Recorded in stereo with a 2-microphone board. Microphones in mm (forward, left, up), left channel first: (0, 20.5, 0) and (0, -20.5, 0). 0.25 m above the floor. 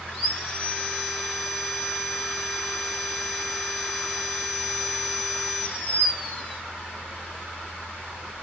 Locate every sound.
0.1 s sawing: 30° left (ahead or behind), 4.5 m